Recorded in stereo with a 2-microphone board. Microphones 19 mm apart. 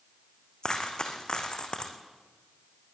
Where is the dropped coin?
45° left (ahead or behind), 3 m.